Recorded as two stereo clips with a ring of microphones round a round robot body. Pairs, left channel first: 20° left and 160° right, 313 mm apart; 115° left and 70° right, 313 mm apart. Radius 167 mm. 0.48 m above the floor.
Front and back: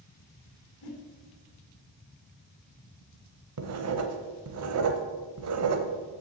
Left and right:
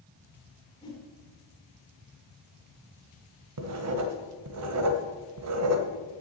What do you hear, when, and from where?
0.8 s a whoosh: 35° left, 2 m
3.6 s writing: 110° right, 1.0 m